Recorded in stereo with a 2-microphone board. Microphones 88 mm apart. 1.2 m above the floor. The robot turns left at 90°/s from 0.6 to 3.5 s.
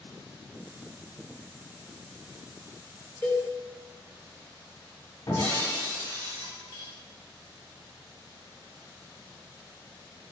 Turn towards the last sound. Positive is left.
turn(degrees=60)  # may be behind; listen again after turning